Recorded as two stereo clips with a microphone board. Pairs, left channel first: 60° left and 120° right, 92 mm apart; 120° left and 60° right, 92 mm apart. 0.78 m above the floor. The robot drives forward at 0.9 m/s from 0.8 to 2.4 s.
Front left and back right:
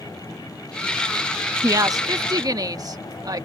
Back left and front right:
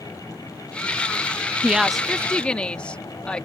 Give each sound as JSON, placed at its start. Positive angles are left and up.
{"t": 1.6, "sound": "a woman speaking", "azimuth_deg": -125}